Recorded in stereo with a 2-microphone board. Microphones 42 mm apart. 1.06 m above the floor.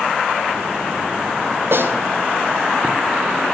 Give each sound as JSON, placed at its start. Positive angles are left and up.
{"t": 1.7, "sound": "a snare drum", "side_deg": -65, "distance_m": 2.5}